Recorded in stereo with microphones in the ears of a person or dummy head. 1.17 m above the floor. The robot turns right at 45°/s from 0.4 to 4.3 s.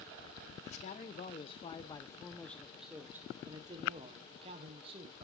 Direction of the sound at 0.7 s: 90° left.